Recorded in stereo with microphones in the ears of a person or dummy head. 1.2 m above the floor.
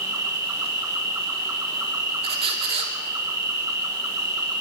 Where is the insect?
20° right (ahead or behind), 1.2 m.